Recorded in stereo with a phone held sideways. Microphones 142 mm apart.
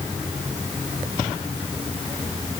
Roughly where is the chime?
No chime in this recording.